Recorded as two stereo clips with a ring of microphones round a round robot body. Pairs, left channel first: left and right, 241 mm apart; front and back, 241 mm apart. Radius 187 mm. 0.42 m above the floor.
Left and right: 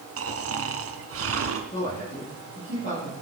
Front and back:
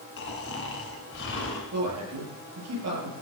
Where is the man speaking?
165° left, 9 m.